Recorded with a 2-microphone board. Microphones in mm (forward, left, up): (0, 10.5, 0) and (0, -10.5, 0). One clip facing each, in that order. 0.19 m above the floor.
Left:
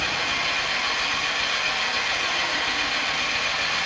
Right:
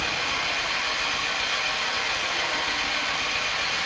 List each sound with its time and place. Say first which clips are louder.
0.0 s an engine running: left 2 dB; 20° left (ahead or behind), 0.7 m